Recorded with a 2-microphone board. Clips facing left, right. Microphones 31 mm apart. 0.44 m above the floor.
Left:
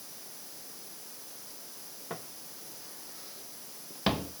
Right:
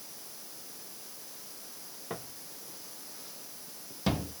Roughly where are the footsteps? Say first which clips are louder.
Right 1 dB; centre.